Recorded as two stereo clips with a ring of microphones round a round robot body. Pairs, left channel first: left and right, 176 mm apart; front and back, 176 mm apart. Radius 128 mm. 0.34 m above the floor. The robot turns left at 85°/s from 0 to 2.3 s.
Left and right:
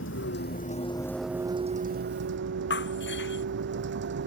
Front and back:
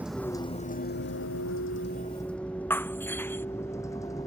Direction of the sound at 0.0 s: 100° left.